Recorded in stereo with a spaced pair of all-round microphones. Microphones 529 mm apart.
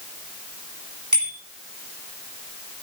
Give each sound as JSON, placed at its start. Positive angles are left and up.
{"t": 1.1, "sound": "a bicycle bell", "side_deg": -35, "distance_m": 9.0}